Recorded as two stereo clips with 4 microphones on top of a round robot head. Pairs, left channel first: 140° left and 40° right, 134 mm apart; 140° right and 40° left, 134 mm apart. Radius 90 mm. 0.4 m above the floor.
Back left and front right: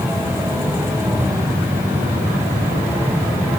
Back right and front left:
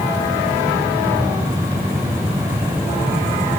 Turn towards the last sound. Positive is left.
No sound to turn to.